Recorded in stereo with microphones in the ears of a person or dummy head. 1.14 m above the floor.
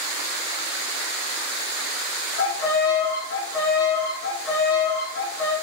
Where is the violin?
85° left, 6 m.